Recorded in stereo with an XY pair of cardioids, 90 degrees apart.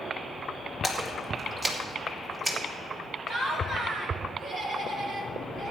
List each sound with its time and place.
0.8 s a splash: 30° right, 2.0 m
3.3 s laughter: 60° right, 3 m